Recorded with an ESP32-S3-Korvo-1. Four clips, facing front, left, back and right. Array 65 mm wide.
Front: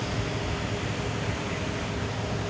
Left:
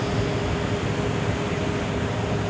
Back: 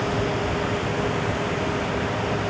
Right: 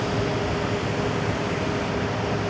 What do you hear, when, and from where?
Only background noise.